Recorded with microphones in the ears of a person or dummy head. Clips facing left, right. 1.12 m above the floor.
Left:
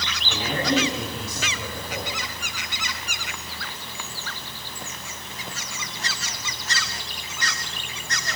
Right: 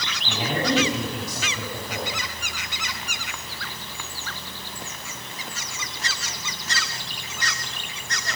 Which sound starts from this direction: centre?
A woman speaking, at 0.2 s.